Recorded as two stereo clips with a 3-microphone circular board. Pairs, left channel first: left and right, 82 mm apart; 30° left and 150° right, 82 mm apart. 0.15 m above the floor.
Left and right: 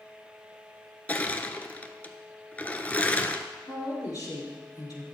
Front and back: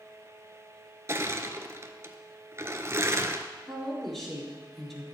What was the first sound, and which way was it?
Crushing, 160° left.